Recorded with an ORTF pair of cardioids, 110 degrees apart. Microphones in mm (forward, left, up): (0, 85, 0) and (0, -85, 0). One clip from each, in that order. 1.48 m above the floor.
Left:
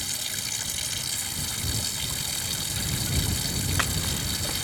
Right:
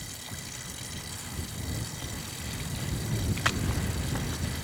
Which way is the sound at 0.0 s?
65° left.